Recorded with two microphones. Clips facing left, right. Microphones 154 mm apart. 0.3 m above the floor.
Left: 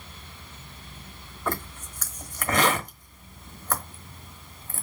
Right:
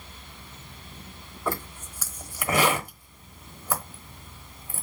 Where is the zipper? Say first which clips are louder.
Even; 10° right (ahead or behind), 1.0 m.